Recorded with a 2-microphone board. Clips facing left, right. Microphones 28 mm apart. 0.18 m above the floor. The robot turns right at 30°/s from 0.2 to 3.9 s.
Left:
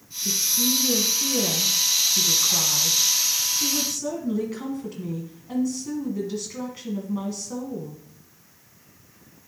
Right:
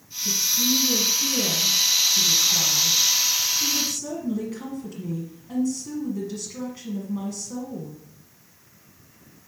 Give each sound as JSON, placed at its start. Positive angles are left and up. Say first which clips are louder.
{"t": 0.2, "sound": "a woman speaking", "louder": "right 1 dB", "azimuth_deg": 40, "distance_m": 1.3}